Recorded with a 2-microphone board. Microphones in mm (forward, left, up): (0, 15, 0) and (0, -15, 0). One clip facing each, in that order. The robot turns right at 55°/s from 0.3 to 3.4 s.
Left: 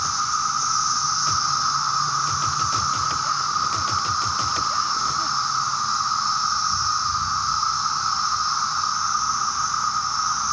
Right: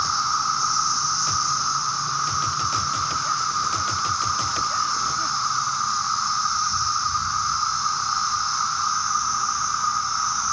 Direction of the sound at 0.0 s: 35° right.